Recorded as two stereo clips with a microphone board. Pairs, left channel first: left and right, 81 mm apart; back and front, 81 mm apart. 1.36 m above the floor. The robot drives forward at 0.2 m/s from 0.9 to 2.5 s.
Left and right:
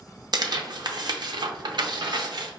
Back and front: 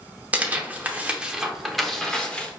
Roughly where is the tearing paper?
Right.